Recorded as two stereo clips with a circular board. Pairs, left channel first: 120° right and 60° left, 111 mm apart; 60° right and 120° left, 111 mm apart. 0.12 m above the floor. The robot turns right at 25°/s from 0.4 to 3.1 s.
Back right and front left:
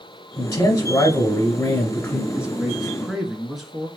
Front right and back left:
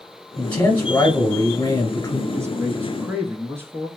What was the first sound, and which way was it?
A man speaking, 110° right.